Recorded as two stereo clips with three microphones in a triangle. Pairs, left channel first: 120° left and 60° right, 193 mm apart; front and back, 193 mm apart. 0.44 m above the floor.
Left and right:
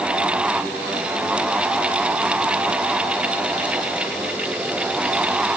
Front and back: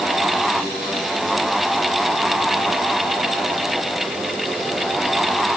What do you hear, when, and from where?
Only background noise.